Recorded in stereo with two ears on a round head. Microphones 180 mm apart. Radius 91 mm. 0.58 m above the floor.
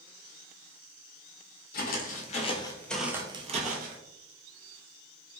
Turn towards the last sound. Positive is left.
turn(degrees=-50)  # may be behind; listen again after turning